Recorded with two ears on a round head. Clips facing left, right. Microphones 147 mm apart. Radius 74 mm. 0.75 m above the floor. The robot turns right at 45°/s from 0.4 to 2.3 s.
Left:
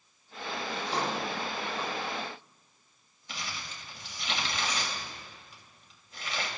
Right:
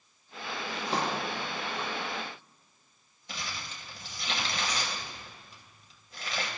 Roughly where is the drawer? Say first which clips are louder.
Right 1 dB; right.